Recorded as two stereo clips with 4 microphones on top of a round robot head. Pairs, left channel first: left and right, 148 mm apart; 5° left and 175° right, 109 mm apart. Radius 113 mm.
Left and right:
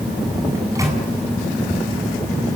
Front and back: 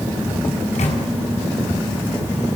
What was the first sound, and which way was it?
A microwave, 25° right.